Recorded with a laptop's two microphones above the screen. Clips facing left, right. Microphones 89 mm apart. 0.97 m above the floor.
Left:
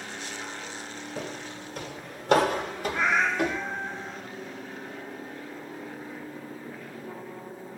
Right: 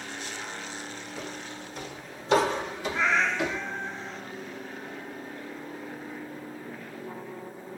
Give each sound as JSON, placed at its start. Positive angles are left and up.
{"t": 1.2, "sound": "footsteps", "side_deg": 50, "distance_m": 1.4}
{"t": 2.9, "sound": "a cat meowing", "side_deg": 10, "distance_m": 0.7}